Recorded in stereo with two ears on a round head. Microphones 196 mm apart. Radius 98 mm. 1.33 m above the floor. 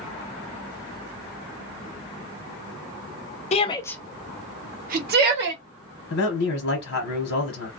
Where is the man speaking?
65° left (ahead or behind), 1.0 m.